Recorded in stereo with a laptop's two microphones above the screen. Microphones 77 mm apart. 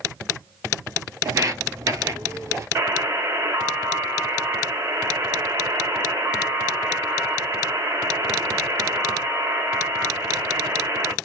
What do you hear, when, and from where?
1.2 s footsteps: 45° right (ahead or behind), 1.4 m; by 2.6 s 35° right (ahead or behind), 1.6 m
2.8 s a buzzer: 35° right (ahead or behind), 1.5 m